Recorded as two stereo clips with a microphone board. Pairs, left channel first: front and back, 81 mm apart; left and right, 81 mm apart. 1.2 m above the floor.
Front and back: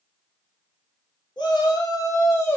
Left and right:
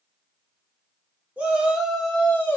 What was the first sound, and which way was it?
A shout, 15° right.